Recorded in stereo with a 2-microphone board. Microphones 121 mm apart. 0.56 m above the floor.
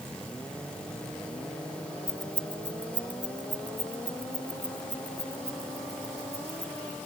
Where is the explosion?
No explosion in this recording.